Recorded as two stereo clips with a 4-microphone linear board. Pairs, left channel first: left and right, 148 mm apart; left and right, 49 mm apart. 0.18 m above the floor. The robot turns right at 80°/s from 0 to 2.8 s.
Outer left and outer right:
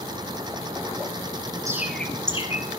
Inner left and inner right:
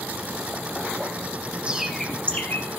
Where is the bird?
20° right (ahead or behind), 1.4 m; by 2.7 s 55° left (ahead or behind), 1.4 m.